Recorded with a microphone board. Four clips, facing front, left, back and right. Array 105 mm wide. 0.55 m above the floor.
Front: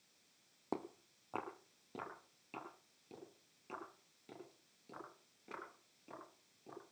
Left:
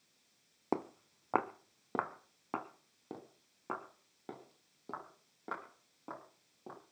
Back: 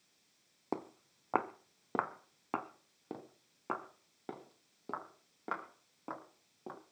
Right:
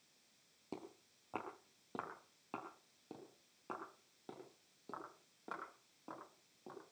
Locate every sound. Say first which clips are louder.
0.7 s footsteps: left 14 dB, back 3 dB; 105° left, 1.2 m; by 6.8 s 165° left, 7.5 m